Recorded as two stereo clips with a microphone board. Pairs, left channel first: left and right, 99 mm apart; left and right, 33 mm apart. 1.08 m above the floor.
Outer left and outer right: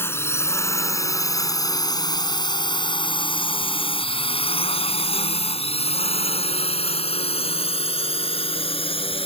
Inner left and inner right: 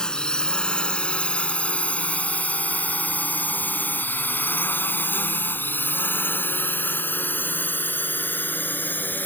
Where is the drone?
25° left (ahead or behind); by 9.3 s 70° left (ahead or behind).